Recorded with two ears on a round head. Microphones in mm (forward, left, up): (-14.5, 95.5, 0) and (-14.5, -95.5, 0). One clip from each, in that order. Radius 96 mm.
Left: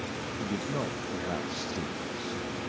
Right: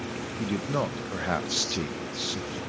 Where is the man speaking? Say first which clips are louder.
Right 5 dB; 40° right (ahead or behind), 0.6 m.